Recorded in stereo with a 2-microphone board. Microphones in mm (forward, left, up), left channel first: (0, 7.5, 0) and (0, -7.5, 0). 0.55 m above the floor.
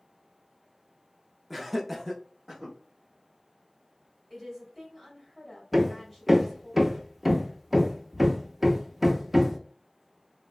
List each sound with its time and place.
1.5 s laughter: centre (ahead or behind), 0.7 m
4.3 s a woman speaking: 5° left (ahead or behind), 1.3 m
5.7 s hammering: 10° right (ahead or behind), 0.5 m